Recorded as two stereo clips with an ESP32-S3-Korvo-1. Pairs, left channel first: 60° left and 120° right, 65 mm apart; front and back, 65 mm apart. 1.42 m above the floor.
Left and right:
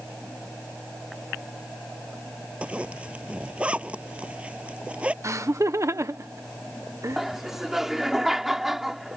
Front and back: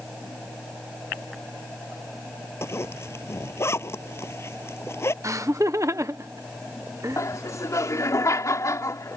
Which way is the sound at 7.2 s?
35° right.